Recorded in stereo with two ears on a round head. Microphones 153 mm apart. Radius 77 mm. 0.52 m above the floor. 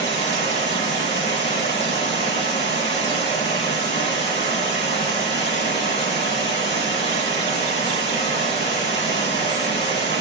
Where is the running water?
40° left (ahead or behind), 1.3 m.